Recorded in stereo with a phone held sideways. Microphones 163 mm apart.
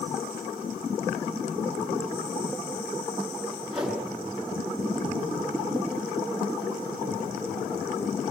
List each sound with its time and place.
3.7 s a whoosh: 5° right (ahead or behind), 9 m